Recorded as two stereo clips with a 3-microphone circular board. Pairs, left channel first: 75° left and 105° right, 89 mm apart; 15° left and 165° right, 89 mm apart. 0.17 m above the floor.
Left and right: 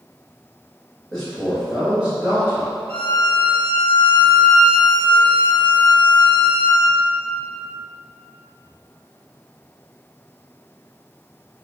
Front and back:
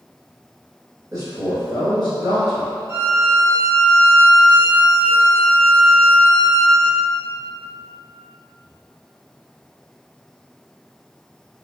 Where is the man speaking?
155° left, 2.0 m; by 2.7 s 160° right, 2 m.